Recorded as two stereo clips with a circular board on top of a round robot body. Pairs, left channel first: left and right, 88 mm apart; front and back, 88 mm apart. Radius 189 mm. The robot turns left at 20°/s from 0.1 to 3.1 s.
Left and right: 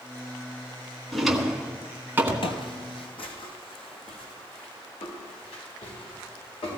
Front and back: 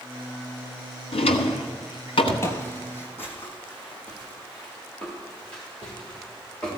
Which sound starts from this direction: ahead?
A drawer, at 1.1 s.